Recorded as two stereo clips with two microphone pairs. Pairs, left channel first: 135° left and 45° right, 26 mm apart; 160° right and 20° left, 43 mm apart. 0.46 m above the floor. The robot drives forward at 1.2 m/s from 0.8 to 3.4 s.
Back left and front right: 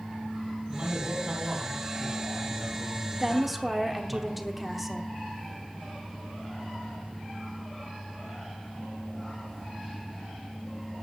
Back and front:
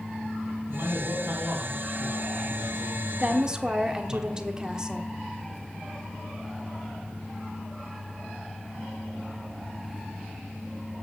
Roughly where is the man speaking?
Ahead.